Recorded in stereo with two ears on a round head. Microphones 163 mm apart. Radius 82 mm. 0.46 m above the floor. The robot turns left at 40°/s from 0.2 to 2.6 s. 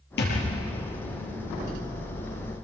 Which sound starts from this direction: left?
A thud, at 0.2 s.